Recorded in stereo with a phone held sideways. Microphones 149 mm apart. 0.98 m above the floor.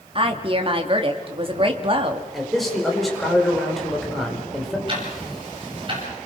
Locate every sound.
0.1 s a woman speaking: 35° right (ahead or behind), 2 m
2.3 s a man speaking: centre (ahead or behind), 4.5 m
4.9 s ticking: 35° right (ahead or behind), 7 m